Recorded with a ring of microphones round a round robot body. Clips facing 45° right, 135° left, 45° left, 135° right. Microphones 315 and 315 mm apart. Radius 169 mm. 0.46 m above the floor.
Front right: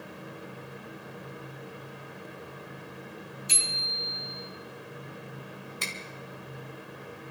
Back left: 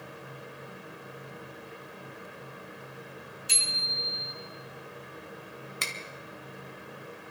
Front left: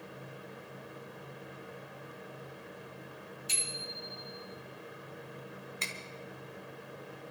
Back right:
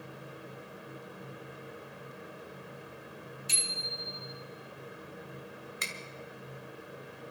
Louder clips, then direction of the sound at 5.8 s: Front right 2 dB, even; 155° left.